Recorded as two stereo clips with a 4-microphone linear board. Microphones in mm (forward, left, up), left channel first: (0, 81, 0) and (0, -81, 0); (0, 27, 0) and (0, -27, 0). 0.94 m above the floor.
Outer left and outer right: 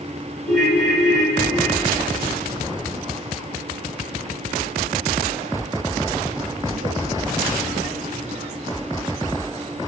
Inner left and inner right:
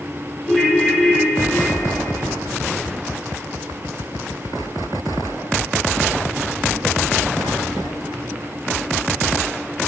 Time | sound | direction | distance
0.5 | a ringtone | 5° left (ahead or behind) | 4.5 m